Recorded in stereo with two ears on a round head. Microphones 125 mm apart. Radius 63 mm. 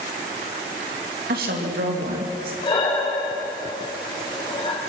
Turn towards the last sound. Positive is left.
turn(degrees=35)  # may be behind; listen again after turning